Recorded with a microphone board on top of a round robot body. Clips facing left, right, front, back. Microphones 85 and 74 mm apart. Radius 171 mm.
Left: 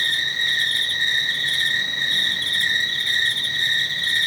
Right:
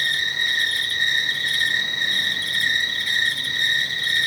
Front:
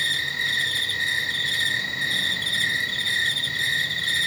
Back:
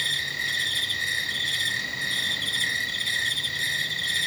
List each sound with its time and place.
0.0 s an insect: 15° right, 2 m